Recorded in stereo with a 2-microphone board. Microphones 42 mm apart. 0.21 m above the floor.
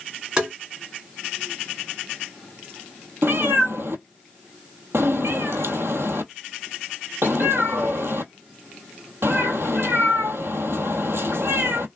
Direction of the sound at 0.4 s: 20° right (ahead or behind).